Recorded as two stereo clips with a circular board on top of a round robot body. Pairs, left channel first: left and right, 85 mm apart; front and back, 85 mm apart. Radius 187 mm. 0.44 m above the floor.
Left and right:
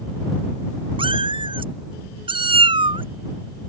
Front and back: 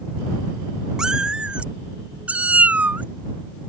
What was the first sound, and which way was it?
A cat meowing, 100° right.